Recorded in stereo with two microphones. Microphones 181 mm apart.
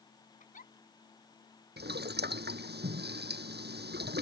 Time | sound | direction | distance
0.4 | a giggle | 50° left (ahead or behind) | ?
1.8 | boiling | 65° right (ahead or behind) | ?